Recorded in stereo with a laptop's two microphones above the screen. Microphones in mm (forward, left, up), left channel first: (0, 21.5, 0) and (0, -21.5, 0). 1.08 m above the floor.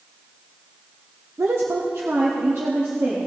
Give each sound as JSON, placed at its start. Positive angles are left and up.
{"t": 1.4, "sound": "a woman speaking", "side_deg": -80, "distance_m": 0.6}